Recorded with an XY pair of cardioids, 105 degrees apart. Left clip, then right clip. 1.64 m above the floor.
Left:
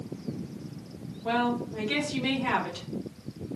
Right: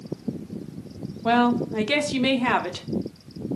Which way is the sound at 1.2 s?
60° right.